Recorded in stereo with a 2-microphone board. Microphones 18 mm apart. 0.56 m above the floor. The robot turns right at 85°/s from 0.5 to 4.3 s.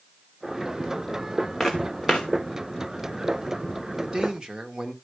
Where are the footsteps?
30° left (ahead or behind), 1.6 m; by 2.3 s 70° left (ahead or behind), 1.6 m.